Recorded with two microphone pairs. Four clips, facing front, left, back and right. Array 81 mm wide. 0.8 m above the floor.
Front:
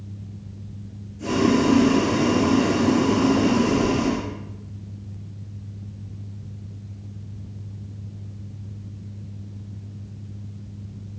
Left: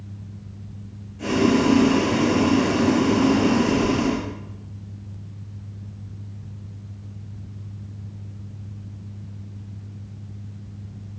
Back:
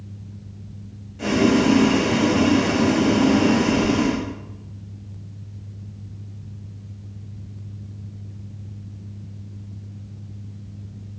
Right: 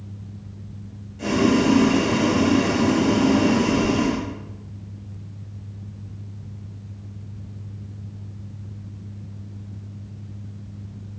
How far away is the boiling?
About 2 m.